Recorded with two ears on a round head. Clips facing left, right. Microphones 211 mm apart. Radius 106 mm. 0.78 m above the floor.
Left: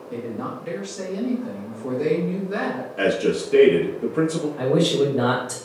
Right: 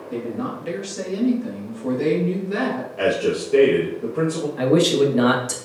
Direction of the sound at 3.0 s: 20° left (ahead or behind).